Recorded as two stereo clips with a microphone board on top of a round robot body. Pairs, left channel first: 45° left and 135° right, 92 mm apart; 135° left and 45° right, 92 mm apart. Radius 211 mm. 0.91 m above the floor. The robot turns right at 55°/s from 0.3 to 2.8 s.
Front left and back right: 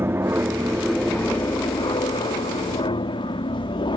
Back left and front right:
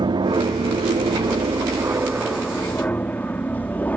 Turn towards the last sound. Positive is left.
turn(degrees=65)